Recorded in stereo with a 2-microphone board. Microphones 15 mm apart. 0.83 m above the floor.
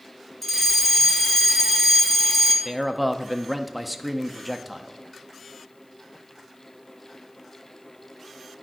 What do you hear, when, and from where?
0.4 s a fire alarm: 20° left (ahead or behind), 2 m
2.6 s a man speaking: 5° right (ahead or behind), 0.8 m